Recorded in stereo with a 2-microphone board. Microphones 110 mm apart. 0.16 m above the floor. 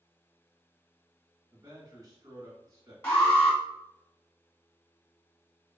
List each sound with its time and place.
1.5 s a man speaking: 40° right (ahead or behind), 1.6 m
3.0 s an alarm: 15° left (ahead or behind), 1.8 m